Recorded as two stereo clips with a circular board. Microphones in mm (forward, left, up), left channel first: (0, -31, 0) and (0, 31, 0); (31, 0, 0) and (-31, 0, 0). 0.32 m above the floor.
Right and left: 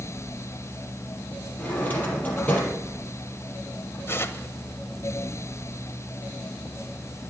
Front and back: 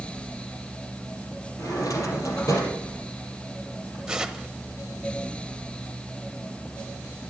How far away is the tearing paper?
About 1.0 m.